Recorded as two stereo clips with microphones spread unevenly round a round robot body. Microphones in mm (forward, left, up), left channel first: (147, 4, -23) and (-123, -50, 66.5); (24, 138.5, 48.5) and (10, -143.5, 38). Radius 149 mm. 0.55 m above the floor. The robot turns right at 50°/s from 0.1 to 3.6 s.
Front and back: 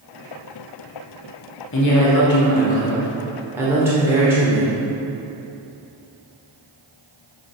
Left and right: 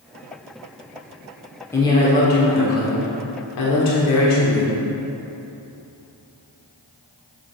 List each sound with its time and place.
1.7 s a woman speaking: 5° left, 1.7 m; by 4.8 s 100° left, 1.7 m